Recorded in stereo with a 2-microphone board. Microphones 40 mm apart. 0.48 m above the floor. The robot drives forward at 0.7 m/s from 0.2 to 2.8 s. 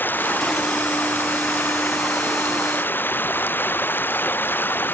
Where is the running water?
55° left (ahead or behind); by 5.0 s 60° left (ahead or behind).